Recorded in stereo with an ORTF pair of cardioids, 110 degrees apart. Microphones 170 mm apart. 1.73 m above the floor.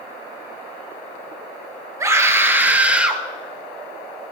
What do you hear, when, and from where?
2.0 s a scream: 20° right, 2.5 m; by 3.2 s 5° right, 3 m